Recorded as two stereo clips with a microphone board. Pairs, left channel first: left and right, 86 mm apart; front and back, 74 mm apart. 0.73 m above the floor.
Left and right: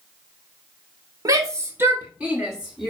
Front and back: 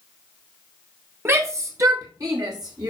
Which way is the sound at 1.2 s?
130° right.